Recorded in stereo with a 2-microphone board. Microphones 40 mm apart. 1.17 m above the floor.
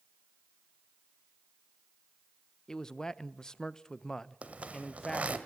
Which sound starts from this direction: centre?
A man speaking, at 2.7 s.